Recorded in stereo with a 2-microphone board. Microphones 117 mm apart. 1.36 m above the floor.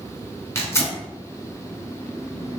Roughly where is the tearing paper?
Left.